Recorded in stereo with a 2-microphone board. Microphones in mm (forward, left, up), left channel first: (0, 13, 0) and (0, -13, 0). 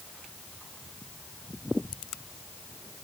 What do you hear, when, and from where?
Only background noise.